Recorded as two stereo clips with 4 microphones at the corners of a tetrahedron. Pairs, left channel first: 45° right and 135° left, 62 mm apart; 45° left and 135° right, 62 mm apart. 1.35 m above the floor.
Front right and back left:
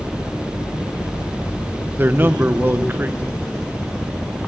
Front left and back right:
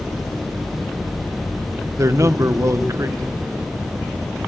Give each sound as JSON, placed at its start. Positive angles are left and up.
{"t": 2.0, "sound": "a man speaking", "azimuth_deg": -170, "distance_m": 0.7}